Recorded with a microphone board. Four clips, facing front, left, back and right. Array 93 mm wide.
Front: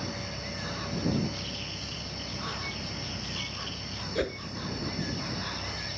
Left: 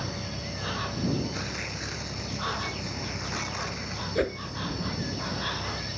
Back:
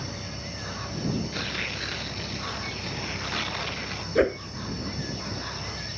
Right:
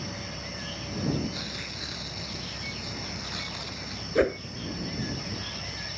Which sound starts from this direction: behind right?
A whoosh, at 4.2 s.